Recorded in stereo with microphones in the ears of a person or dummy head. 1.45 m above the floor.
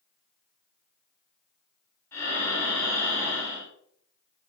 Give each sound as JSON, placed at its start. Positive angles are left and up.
{"t": 2.1, "sound": "breathing", "side_deg": 10, "distance_m": 5.0}